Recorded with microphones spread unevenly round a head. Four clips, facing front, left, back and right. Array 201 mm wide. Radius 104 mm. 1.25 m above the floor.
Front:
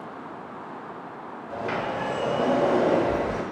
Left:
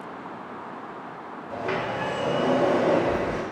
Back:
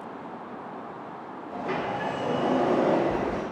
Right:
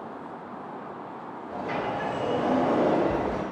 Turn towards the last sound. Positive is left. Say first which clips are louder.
# left 2 dB, front 1 dB
turn(degrees=70)